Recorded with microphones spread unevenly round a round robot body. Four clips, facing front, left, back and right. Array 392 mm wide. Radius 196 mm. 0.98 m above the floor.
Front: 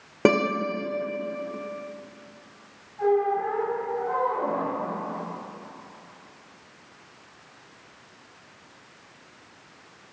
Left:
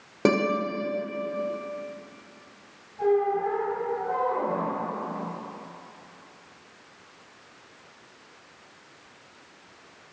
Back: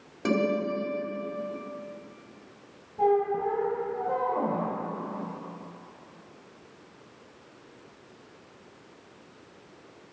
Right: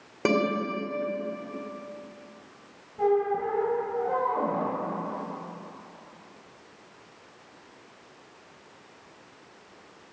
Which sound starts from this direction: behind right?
A squeak, at 3.0 s.